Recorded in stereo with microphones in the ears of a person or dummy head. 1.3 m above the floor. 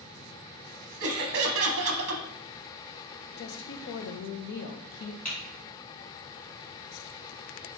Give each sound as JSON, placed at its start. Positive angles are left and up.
{"t": 1.0, "sound": "laughter", "side_deg": -65, "distance_m": 0.8}
{"t": 3.4, "sound": "a woman speaking", "side_deg": 55, "distance_m": 0.6}
{"t": 5.2, "sound": "typing on a keyboard", "side_deg": 10, "distance_m": 2.5}